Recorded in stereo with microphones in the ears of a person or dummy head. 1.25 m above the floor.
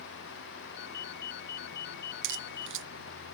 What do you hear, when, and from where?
0.8 s a ringtone: 65° left (ahead or behind)
2.2 s a crack: 65° right (ahead or behind)